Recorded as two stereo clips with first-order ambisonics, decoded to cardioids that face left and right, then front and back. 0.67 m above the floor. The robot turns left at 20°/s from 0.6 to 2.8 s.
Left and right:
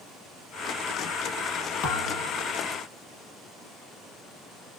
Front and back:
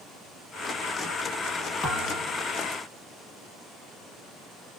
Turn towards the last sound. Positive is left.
turn(degrees=45)